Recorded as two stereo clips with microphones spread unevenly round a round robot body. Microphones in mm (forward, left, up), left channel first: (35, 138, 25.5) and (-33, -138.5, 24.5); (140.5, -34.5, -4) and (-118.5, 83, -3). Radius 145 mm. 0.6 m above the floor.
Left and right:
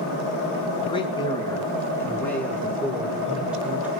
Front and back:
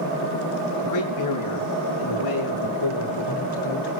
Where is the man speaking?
5° left, 6.5 m; by 3.9 s 20° right, 8 m.